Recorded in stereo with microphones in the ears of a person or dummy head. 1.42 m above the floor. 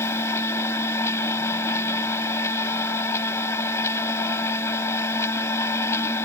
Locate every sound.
0.0 s a machine running: 20° left (ahead or behind)